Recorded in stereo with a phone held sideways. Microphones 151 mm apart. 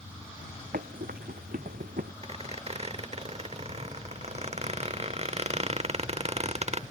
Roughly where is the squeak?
Right.